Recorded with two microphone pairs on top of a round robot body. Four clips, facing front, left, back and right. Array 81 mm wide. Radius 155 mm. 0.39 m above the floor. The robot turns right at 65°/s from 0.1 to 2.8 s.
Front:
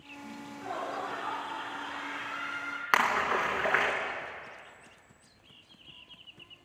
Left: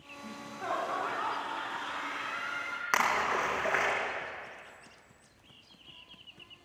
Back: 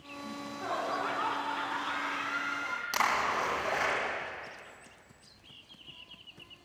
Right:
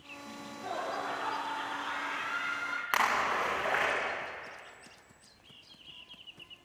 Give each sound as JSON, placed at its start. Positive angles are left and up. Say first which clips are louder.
{"t": 0.2, "sound": "laughter", "louder": "left 4 dB, back 3 dB", "azimuth_deg": 90, "distance_m": 5.5}
{"t": 2.9, "sound": "a splash", "louder": "left 1 dB, front 3 dB", "azimuth_deg": 10, "distance_m": 4.5}